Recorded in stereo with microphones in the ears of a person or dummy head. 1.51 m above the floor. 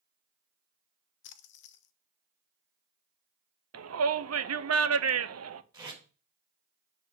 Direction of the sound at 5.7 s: 20° right (ahead or behind).